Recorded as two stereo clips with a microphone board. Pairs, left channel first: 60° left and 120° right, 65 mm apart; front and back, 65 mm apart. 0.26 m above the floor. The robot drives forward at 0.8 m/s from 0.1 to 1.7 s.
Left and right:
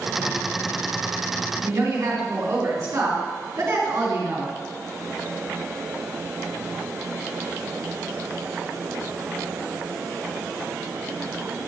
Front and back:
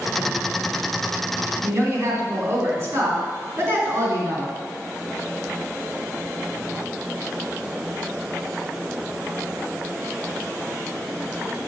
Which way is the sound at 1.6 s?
145° right.